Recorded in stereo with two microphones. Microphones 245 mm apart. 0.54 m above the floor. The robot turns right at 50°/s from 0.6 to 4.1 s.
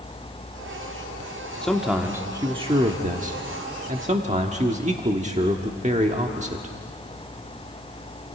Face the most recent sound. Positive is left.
turn(degrees=-65)